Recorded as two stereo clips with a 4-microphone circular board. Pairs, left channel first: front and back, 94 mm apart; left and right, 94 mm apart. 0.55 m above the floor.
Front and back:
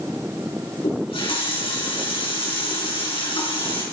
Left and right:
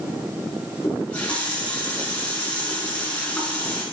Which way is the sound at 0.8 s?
15° left.